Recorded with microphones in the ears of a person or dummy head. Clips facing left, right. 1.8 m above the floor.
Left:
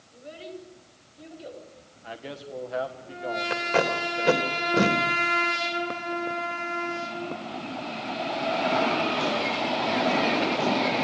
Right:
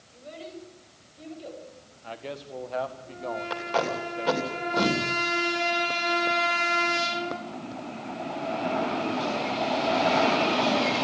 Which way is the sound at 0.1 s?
10° left (ahead or behind).